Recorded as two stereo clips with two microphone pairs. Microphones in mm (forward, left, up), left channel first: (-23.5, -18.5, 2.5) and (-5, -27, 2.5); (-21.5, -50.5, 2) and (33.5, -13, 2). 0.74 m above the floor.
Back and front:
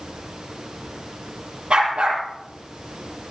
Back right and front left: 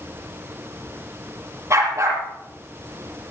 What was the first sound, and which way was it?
A dog barking, 10° right.